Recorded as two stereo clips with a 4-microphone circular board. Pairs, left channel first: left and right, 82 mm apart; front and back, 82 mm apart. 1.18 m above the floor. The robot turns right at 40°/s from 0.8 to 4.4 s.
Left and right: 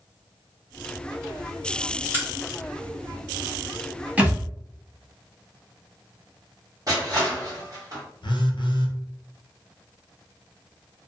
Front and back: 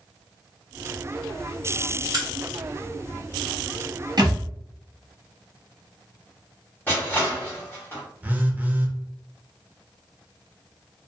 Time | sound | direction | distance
2.1 | a crack | 150° right | 1.2 m
4.2 | a thud | 165° right | 0.9 m
6.9 | crushing | 60° right | 1.4 m
8.2 | a phone buzzing | 105° left | 0.5 m